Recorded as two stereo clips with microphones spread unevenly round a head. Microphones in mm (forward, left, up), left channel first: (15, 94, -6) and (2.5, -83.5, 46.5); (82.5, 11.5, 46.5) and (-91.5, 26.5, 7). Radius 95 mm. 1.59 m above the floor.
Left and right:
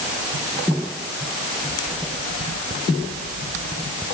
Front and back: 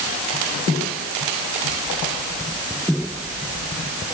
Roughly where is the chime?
I don't hear a chime.